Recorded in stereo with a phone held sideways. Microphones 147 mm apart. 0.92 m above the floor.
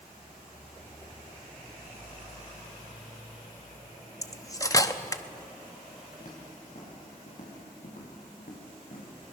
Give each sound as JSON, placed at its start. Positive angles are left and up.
{"t": 4.2, "sound": "cutlery clinking", "side_deg": 25, "distance_m": 0.8}
{"t": 6.2, "sound": "footsteps", "side_deg": 55, "distance_m": 7.0}